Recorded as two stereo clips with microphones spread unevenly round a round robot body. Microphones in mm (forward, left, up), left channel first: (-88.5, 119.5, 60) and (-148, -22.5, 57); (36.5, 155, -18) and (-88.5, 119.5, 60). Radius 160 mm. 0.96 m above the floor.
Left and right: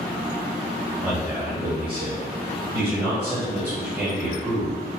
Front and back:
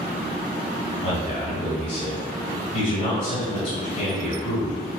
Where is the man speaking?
30° right, 1.3 m.